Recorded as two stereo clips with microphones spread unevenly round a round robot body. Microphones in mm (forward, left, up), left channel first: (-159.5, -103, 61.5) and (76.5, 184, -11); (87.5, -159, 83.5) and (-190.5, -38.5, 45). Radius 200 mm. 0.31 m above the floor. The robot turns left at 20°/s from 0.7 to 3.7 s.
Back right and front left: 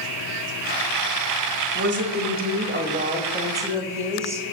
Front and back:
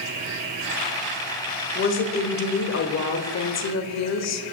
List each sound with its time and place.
1.8 s a woman speaking: 20° left, 1.3 m; by 4.5 s 20° right, 1.3 m